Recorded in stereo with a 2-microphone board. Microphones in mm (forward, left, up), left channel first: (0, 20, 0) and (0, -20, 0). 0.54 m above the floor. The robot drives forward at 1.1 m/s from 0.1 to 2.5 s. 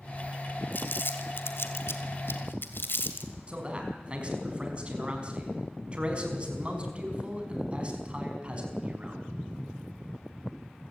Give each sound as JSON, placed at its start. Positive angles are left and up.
{"t": 0.7, "sound": "crumpling", "side_deg": 50, "distance_m": 2.0}
{"t": 3.5, "sound": "a man speaking", "side_deg": -30, "distance_m": 4.5}